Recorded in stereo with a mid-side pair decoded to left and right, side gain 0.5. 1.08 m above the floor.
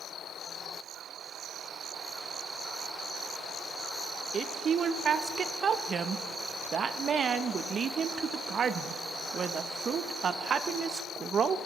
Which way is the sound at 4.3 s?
45° right.